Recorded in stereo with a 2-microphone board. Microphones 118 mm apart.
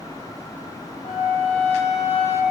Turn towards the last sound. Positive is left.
turn(degrees=65)  # may be behind; listen again after turning